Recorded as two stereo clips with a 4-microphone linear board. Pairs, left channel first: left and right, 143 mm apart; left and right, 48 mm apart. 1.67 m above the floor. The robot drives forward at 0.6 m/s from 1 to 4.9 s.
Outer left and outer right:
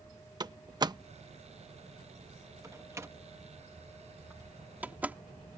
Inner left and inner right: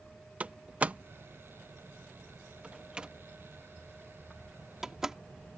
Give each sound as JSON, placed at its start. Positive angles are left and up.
{"t": 0.4, "sound": "a door slam", "side_deg": -30}